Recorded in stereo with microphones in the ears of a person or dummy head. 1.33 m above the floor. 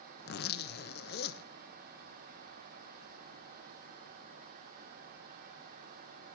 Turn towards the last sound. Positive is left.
turn(degrees=50)  # may be behind; listen again after turning